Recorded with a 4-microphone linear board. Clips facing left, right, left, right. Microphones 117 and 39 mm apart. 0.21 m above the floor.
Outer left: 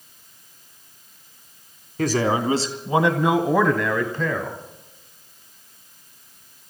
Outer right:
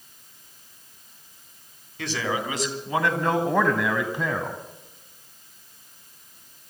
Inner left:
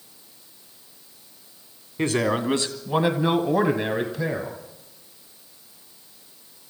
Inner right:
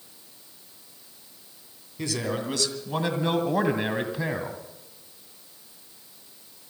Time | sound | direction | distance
2.0 | a man speaking | 45° left (ahead or behind) | 2 m